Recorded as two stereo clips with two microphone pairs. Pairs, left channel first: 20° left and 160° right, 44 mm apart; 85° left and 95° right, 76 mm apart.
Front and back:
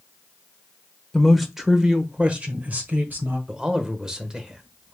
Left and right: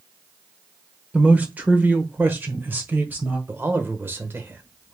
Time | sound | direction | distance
1.1 | a man speaking | 55° right | 0.9 m
3.5 | a man speaking | 105° right | 0.9 m